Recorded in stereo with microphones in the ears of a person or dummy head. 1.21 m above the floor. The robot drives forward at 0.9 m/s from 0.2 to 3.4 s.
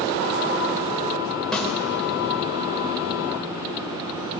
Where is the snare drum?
5° left (ahead or behind), 5 m.